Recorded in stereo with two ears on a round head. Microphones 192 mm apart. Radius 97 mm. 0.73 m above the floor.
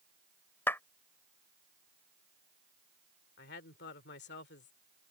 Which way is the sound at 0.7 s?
10° left (ahead or behind).